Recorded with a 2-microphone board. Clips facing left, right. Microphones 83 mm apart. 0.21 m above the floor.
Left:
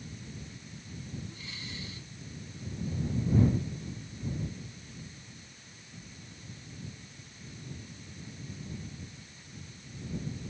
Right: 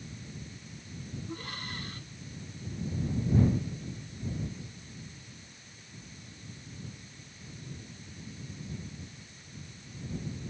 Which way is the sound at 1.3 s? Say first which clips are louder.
Right 5 dB; 50° right (ahead or behind).